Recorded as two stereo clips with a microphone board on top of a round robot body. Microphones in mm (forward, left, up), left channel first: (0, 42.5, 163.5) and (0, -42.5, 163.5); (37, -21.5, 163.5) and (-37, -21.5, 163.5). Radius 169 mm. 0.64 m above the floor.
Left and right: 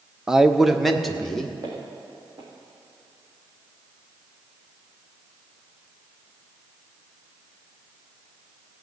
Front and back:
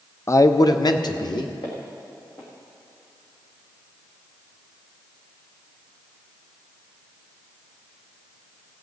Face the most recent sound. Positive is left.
turn(degrees=-35)